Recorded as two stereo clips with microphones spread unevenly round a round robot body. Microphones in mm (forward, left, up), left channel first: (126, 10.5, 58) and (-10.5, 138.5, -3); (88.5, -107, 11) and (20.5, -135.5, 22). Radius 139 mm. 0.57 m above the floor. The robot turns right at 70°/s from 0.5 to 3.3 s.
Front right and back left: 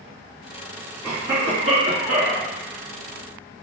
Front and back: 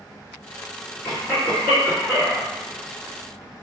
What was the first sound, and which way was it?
A cough, 70° left.